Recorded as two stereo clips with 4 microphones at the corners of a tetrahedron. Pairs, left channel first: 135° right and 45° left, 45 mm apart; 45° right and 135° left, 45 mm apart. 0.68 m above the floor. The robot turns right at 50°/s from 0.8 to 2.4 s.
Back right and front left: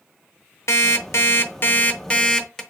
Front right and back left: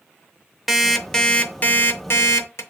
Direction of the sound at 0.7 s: 135° right.